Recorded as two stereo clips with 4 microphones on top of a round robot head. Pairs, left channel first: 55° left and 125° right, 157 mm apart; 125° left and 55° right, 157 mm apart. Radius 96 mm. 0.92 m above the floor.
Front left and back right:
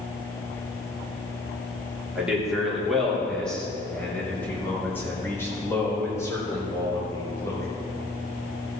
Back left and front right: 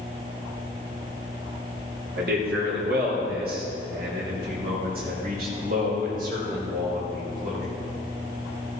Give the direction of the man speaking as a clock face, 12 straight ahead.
1 o'clock.